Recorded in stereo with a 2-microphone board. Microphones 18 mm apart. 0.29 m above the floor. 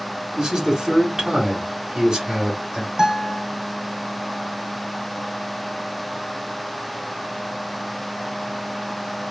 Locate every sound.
0.4 s a man speaking: 30° right (ahead or behind), 1.6 m
3.0 s a guitar: 45° right (ahead or behind), 1.8 m